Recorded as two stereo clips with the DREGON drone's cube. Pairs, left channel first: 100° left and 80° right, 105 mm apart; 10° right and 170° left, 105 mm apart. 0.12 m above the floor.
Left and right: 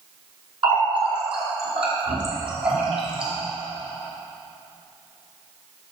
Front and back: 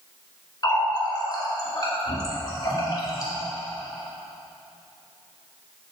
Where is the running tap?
60° right, 2 m.